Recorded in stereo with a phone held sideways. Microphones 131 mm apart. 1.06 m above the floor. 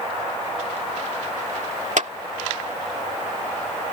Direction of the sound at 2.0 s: 70° right (ahead or behind).